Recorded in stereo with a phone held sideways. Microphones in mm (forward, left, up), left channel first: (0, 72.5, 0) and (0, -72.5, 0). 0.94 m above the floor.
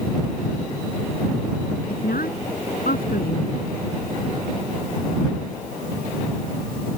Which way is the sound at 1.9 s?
85° left.